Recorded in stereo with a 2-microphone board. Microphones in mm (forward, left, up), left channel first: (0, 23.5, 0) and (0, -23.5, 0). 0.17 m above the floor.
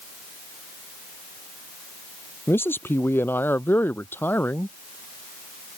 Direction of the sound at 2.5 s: 55° left (ahead or behind).